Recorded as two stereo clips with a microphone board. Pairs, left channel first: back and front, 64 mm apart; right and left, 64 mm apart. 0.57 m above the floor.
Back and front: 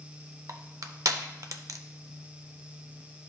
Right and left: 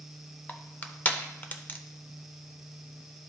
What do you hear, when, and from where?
0.5 s crushing: 25° right, 0.6 m